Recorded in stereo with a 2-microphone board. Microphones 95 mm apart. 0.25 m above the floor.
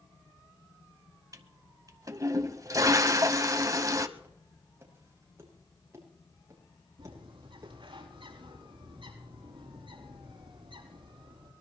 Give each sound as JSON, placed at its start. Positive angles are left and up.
{"t": 1.3, "sound": "a toilet flushing", "side_deg": -35, "distance_m": 1.0}
{"t": 4.2, "sound": "footsteps", "side_deg": -20, "distance_m": 6.0}
{"t": 7.0, "sound": "a bird", "side_deg": -60, "distance_m": 6.0}